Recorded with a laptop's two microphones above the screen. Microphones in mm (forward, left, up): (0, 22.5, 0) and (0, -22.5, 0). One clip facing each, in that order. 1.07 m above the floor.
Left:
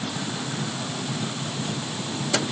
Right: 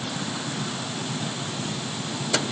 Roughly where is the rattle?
No rattle in this recording.